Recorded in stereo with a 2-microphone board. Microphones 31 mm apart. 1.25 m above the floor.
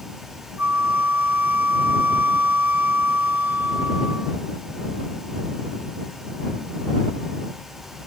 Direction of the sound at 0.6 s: 65° right (ahead or behind).